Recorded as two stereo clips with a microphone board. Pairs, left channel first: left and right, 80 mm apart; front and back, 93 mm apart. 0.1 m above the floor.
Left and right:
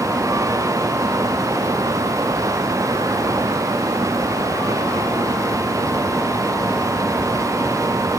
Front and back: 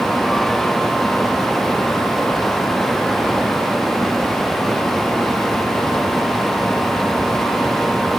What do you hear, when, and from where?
Only background noise.